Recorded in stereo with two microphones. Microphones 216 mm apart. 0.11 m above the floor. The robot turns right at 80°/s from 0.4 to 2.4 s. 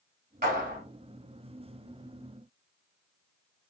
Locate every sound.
0.4 s a clap: 40° right (ahead or behind), 1.8 m